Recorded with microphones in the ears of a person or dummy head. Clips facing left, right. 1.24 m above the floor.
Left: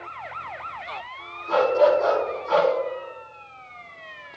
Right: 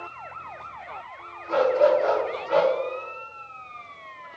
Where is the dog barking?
60° left (ahead or behind), 1.4 m.